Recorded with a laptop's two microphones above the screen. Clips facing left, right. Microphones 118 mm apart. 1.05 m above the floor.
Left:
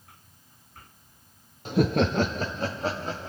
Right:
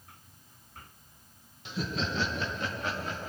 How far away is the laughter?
About 0.5 m.